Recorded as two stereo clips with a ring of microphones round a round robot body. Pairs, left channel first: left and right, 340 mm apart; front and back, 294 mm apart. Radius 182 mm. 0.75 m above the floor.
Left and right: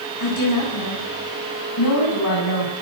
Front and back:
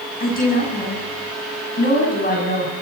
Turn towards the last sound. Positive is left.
turn(degrees=60)